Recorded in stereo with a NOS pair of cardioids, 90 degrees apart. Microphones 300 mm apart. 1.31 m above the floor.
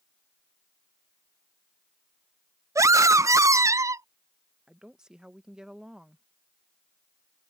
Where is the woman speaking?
Straight ahead.